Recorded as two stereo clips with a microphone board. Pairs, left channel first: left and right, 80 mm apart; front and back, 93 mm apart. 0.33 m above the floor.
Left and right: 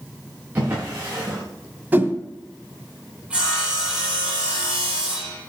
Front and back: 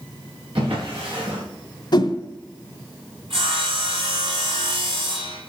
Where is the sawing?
165° right, 6.5 m.